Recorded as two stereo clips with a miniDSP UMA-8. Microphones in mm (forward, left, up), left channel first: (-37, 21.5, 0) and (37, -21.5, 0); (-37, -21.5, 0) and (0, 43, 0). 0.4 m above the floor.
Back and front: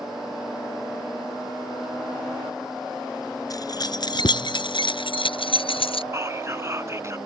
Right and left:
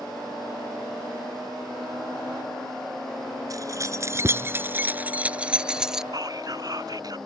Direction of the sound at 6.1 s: 30° left.